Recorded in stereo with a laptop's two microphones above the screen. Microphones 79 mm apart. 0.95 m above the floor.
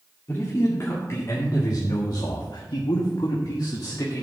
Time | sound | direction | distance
0.3 | a man speaking | 35° left (ahead or behind) | 2 m